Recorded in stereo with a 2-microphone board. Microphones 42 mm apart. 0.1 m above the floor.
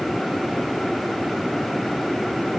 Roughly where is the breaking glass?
No breaking glass in this recording.